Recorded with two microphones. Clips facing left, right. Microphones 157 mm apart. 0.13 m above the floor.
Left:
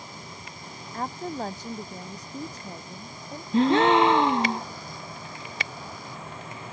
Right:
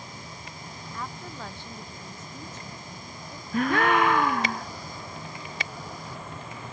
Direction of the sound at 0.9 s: 45° left (ahead or behind).